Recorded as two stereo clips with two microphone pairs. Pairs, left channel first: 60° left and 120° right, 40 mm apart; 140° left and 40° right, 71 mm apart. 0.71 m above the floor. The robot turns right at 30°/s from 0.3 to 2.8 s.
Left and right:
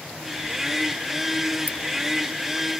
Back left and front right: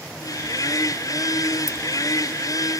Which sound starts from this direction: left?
Keys jangling, at 1.7 s.